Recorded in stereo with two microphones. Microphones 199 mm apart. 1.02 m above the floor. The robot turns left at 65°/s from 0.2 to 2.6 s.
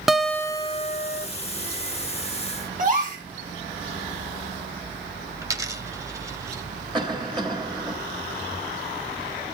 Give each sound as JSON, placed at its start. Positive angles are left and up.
{"t": 0.1, "sound": "a guitar", "azimuth_deg": 180, "distance_m": 0.6}
{"t": 2.8, "sound": "a gasp", "side_deg": -45, "distance_m": 3.5}
{"t": 5.4, "sound": "a dropped coin", "side_deg": -15, "distance_m": 1.0}
{"t": 6.9, "sound": "a cough", "side_deg": -25, "distance_m": 3.0}